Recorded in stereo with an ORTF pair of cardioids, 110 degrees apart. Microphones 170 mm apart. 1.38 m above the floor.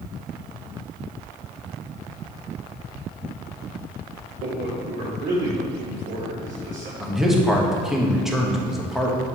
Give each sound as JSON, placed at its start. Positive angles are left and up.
{"t": 4.4, "sound": "a man speaking", "azimuth_deg": -60, "distance_m": 2.5}
{"t": 7.0, "sound": "a man speaking", "azimuth_deg": 0, "distance_m": 1.4}